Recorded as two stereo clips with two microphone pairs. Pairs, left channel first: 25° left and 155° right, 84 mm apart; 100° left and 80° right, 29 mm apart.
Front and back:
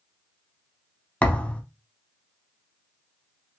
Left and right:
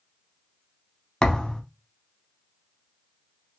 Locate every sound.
1.2 s a thud: 80° left, 0.7 m